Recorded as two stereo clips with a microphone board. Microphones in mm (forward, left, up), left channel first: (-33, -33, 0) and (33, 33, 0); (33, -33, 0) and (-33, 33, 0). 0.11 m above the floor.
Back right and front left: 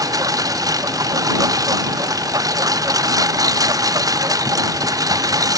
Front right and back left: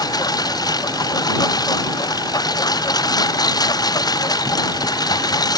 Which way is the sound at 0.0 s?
5° right.